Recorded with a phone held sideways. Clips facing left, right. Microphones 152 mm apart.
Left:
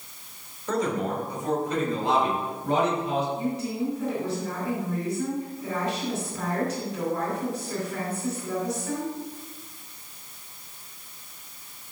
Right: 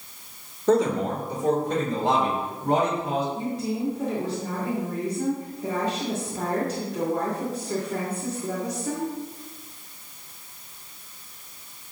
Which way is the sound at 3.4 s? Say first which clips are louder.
Even; 85° right.